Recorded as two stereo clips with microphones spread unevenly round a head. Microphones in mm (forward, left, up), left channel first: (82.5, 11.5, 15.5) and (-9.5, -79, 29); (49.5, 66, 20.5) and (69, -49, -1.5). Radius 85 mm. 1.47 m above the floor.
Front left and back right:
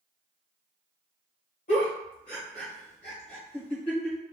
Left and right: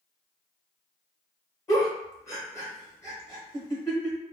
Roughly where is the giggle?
Ahead left.